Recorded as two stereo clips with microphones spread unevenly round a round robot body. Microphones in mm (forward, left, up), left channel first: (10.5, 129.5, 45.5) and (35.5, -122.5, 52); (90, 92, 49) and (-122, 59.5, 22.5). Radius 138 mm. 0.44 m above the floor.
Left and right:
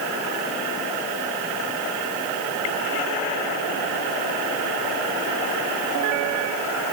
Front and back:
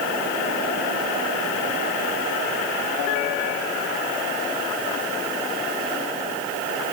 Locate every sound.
Only background noise.